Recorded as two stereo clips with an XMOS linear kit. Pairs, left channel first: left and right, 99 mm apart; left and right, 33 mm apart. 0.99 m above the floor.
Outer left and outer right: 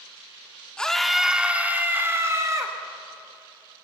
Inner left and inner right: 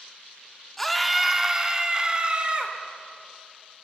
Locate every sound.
0.8 s a scream: 10° left (ahead or behind), 2 m; by 2.8 s 35° right (ahead or behind), 3.5 m